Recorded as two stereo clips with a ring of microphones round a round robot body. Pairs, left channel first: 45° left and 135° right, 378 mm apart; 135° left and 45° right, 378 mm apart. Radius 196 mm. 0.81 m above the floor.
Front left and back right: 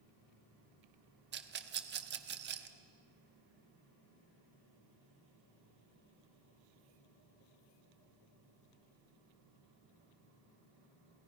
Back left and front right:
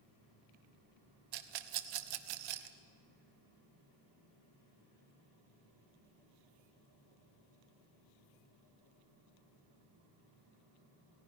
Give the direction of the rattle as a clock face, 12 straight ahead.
2 o'clock.